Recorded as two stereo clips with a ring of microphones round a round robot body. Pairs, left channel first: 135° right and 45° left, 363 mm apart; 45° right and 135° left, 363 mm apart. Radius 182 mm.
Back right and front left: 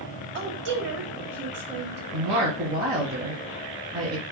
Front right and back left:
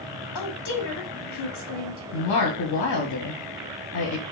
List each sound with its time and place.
0.3 s a woman speaking: 10° right, 1.1 m
2.1 s a woman speaking: 20° right, 1.0 m